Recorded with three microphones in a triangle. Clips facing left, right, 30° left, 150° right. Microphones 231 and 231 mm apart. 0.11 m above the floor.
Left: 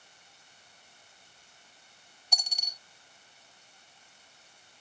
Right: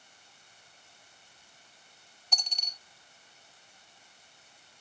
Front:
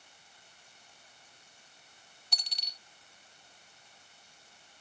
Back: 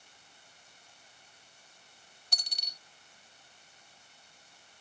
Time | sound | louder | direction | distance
2.3 | a dropped coin | even, back 1 dB | 170° left | ?